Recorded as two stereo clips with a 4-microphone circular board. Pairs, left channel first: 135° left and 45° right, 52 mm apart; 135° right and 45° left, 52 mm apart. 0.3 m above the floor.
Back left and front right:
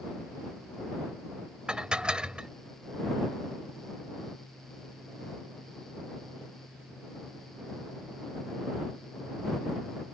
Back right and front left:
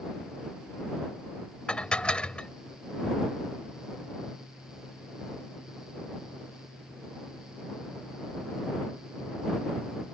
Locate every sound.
1.7 s dishes clattering: 95° right